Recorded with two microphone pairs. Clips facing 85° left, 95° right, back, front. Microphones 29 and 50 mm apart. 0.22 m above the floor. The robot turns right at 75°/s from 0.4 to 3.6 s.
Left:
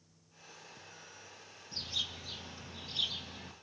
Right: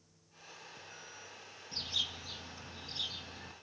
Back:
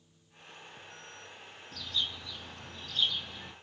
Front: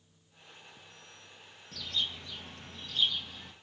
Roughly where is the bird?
Ahead right.